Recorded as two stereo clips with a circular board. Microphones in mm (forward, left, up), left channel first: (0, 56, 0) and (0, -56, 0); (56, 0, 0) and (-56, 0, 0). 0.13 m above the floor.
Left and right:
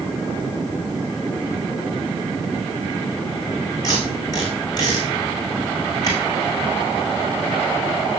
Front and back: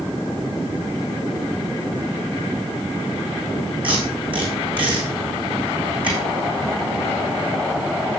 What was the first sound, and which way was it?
Tape being pulled, 145° left.